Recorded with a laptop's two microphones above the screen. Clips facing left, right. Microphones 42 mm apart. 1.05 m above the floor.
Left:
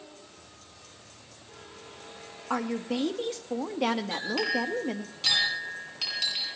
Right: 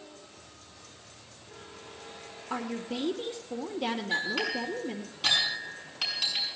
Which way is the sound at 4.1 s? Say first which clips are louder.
Left 1 dB; 15° right (ahead or behind).